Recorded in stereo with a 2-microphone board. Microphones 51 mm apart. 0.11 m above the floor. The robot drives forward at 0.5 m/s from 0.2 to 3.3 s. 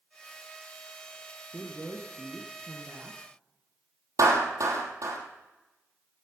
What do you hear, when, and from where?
1.5 s a woman speaking: 15° right (ahead or behind), 1.9 m; by 3.2 s 20° right (ahead or behind), 1.5 m
4.2 s a clap: 70° right (ahead or behind), 3 m